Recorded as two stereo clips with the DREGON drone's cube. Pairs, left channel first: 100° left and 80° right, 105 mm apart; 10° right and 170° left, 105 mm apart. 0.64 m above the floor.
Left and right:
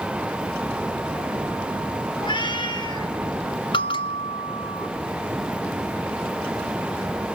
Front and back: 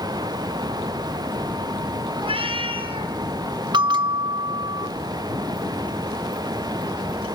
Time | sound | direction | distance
2.2 | a cat meowing | 140° left | 3.5 m
3.7 | a bell | 130° left | 1.3 m